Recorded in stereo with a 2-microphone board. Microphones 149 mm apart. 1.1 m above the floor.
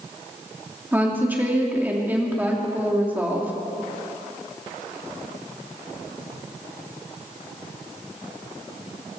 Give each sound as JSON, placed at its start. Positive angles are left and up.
{"t": 0.9, "sound": "a woman speaking", "side_deg": -10, "distance_m": 2.0}